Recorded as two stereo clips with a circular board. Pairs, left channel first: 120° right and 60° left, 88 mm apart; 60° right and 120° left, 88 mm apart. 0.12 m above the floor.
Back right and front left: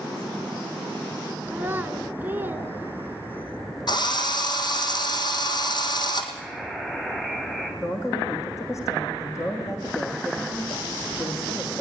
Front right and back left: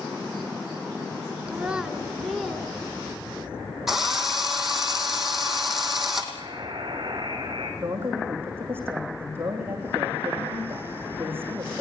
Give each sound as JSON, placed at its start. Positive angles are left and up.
{"t": 1.5, "sound": "a child speaking", "azimuth_deg": 75, "distance_m": 1.2}
{"t": 3.9, "sound": "a drill", "azimuth_deg": -155, "distance_m": 3.0}
{"t": 6.3, "sound": "a buzzer", "azimuth_deg": 160, "distance_m": 7.0}
{"t": 7.8, "sound": "a man speaking", "azimuth_deg": -175, "distance_m": 6.0}